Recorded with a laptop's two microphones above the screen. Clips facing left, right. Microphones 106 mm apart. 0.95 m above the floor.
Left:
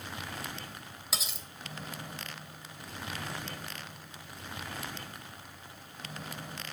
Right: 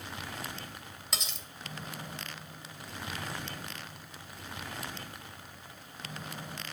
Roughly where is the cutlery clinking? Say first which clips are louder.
Left 1 dB; centre.